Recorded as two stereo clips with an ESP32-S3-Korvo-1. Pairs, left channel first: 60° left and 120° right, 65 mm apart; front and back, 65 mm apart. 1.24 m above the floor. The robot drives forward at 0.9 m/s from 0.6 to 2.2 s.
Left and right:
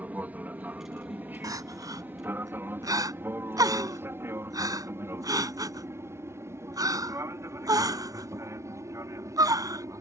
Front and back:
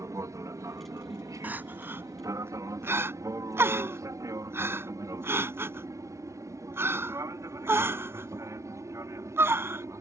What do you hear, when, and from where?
0.0 s an aircraft: straight behind; by 10.0 s 150° right
1.4 s crying: 120° right; by 9.8 s 130° right